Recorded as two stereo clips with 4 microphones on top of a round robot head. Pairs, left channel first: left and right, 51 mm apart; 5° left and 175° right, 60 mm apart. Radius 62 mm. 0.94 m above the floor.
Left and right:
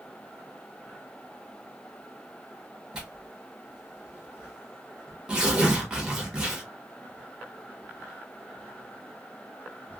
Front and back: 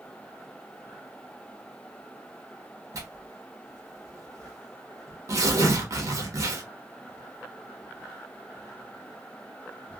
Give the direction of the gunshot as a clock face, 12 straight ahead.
No gunshot in this recording.